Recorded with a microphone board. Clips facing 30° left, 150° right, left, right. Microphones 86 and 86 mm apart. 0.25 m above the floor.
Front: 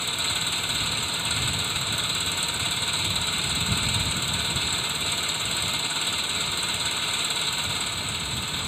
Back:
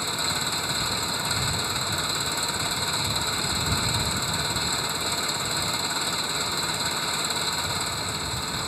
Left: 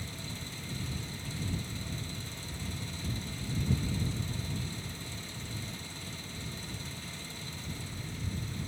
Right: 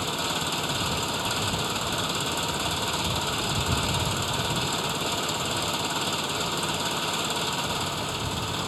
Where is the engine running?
75° right.